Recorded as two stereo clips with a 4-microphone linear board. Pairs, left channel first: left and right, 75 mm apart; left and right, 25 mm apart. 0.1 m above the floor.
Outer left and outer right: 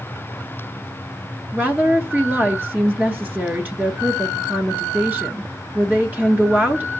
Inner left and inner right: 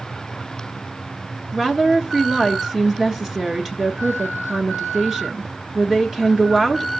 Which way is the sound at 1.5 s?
20° right (ahead or behind).